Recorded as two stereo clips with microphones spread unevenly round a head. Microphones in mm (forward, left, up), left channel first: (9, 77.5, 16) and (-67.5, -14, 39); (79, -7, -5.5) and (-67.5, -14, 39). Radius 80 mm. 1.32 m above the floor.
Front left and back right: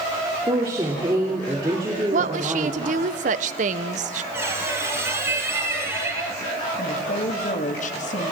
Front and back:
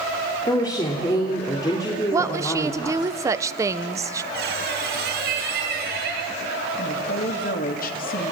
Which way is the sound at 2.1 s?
100° right.